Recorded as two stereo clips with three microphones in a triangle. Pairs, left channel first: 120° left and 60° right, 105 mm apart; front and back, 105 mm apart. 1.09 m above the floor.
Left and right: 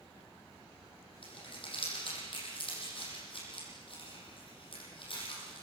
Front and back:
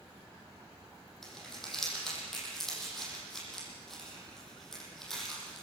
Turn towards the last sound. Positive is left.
turn(degrees=85)